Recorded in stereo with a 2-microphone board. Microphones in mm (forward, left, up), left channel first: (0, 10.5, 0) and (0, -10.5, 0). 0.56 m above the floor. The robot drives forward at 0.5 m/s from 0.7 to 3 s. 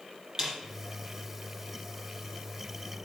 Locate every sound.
0.4 s a snare drum: 30° right (ahead or behind), 5 m